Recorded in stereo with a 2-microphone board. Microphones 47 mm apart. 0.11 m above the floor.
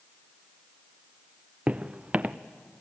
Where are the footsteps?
25° right (ahead or behind), 0.8 m.